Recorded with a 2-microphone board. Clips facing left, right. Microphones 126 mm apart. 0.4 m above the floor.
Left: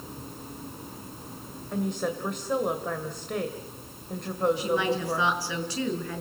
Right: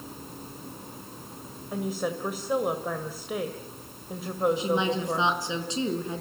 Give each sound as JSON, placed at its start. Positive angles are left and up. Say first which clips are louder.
{"t": 1.7, "sound": "a woman speaking", "louder": "left 1 dB", "side_deg": -5, "distance_m": 2.0}
{"t": 4.6, "sound": "a woman speaking", "louder": "even", "side_deg": -20, "distance_m": 4.5}